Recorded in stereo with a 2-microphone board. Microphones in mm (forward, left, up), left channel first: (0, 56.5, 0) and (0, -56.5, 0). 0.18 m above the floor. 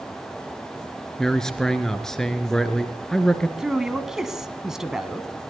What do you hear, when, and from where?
1.2 s a man speaking: 5° left (ahead or behind), 2 m
3.6 s a man speaking: 5° right (ahead or behind), 1.7 m